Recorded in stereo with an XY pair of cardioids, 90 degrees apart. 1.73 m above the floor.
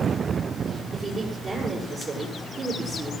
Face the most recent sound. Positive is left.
turn(degrees=-40)